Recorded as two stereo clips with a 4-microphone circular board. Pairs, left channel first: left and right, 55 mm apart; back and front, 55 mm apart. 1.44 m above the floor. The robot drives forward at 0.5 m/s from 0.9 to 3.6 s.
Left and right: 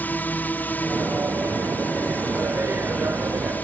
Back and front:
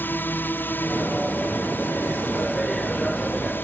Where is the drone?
140° left.